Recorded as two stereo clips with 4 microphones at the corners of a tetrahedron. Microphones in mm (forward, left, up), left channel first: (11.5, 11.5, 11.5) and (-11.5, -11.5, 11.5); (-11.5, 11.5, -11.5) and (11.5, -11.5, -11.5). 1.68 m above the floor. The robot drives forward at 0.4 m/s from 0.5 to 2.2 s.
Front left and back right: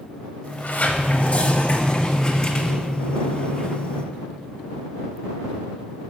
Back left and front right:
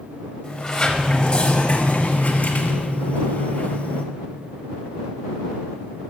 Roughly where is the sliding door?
Ahead left.